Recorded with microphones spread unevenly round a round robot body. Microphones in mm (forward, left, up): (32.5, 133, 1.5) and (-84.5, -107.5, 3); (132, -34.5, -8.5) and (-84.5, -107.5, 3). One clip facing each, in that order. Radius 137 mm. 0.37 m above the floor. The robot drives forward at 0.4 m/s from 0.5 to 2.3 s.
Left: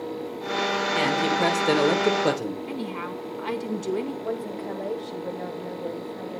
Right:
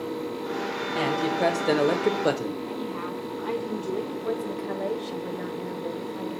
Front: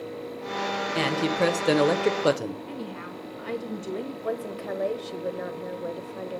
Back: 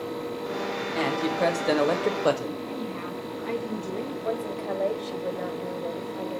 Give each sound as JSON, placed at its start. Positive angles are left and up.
{"t": 0.9, "sound": "a man speaking", "azimuth_deg": -10, "distance_m": 1.4}
{"t": 2.7, "sound": "a woman speaking", "azimuth_deg": 90, "distance_m": 1.7}
{"t": 4.2, "sound": "a woman speaking", "azimuth_deg": -50, "distance_m": 1.4}